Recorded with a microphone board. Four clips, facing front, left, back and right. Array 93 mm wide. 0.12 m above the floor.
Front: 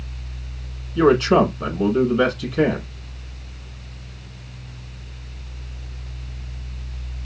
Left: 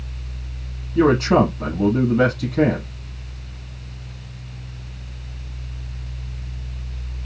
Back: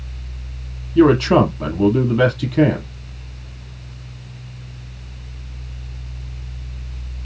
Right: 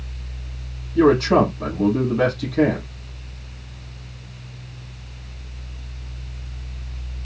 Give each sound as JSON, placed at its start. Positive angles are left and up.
{"t": 0.9, "sound": "a man speaking", "azimuth_deg": 170, "distance_m": 3.5}